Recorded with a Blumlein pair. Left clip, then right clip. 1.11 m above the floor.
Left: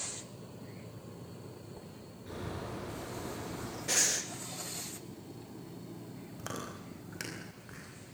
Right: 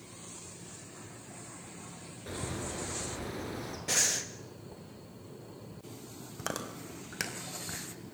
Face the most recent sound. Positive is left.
turn(degrees=-70)